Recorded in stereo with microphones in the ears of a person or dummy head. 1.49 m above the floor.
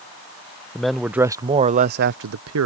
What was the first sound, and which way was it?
A man speaking, 5° left (ahead or behind).